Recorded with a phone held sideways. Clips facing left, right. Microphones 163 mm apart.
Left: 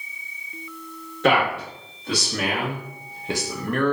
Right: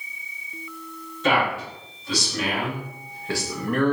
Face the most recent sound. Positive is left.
turn(degrees=-15)  # may be behind; listen again after turning